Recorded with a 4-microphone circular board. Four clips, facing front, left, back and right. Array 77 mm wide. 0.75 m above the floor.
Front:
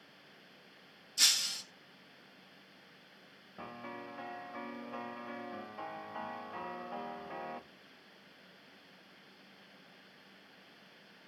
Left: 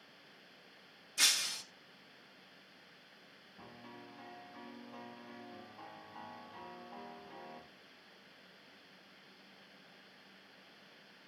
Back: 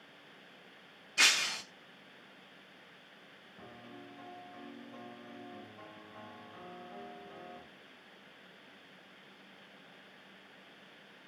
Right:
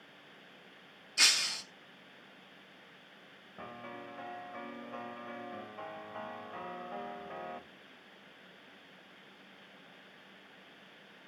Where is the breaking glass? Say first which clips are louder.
Right 4 dB, back 8 dB; 165° right, 0.6 m.